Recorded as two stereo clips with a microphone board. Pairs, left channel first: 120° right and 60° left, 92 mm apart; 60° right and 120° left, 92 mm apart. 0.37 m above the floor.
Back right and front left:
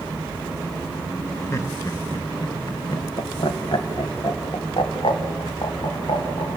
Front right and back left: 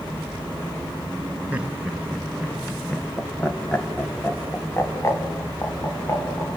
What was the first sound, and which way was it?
Laughter, 170° right.